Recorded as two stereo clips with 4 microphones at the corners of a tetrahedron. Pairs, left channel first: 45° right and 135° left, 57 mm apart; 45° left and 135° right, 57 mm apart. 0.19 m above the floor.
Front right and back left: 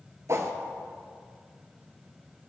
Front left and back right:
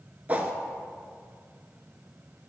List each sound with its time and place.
0.3 s a whoosh: 165° left, 0.5 m